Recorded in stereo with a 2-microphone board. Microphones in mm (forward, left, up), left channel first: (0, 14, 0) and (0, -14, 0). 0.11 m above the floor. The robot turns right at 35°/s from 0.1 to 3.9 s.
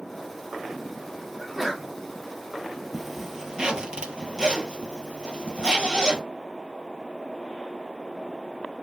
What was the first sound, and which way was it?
A sneeze, 5° right (ahead or behind).